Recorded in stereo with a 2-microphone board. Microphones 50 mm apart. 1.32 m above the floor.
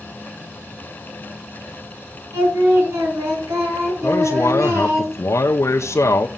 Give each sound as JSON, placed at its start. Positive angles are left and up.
{"t": 2.3, "sound": "singing", "side_deg": -65, "distance_m": 5.0}
{"t": 4.0, "sound": "a man speaking", "side_deg": 65, "distance_m": 0.7}